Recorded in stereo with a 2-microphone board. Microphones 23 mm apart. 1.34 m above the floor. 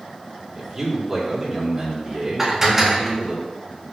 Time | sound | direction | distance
0.6 | a man speaking | 15° right (ahead or behind) | 2.5 m
2.4 | dishes clattering | 15° right (ahead or behind) | 1.4 m